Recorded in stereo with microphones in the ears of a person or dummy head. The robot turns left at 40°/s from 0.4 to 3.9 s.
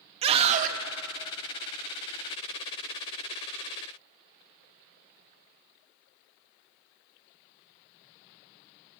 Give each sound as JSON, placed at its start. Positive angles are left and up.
{"t": 0.2, "sound": "a scream", "side_deg": -35, "distance_m": 1.4}